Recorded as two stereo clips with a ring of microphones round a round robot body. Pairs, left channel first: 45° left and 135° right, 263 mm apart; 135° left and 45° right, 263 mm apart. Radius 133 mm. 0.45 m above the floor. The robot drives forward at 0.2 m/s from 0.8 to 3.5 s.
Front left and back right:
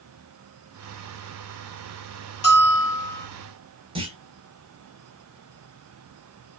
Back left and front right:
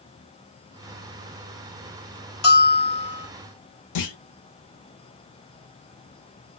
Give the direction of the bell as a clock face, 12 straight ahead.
9 o'clock.